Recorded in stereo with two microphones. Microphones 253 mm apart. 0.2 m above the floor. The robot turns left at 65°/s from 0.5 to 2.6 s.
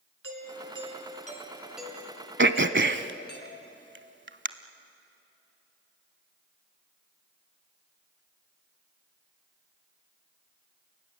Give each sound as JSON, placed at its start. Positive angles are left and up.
{"t": 0.2, "sound": "a doorbell", "azimuth_deg": -95, "distance_m": 3.0}
{"t": 2.4, "sound": "throat clearing", "side_deg": -50, "distance_m": 0.8}